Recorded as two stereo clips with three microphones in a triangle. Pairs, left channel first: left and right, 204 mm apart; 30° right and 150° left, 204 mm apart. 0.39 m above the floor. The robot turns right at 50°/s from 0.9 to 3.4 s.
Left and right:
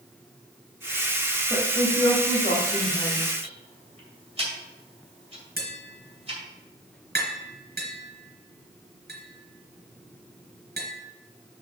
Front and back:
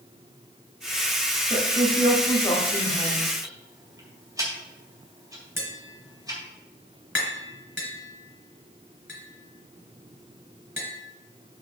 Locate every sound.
1.5 s a woman speaking: 5° right, 1.8 m; by 3.3 s 85° left, 1.8 m
3.4 s ticking: 140° right, 2.5 m
5.6 s tapping: 130° right, 3 m